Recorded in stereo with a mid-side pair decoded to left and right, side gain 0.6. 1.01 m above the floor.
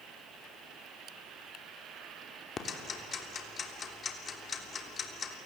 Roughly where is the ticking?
Ahead left.